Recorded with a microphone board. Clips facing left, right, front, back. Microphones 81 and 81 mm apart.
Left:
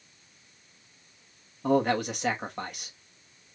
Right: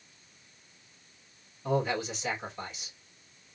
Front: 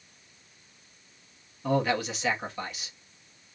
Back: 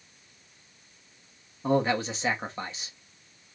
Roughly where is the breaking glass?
I don't hear breaking glass.